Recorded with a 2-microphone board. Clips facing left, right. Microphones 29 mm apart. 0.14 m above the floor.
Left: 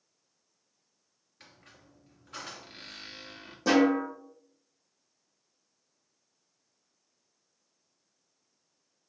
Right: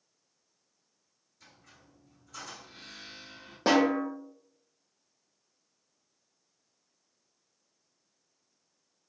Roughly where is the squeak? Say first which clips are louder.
Left 2 dB; left.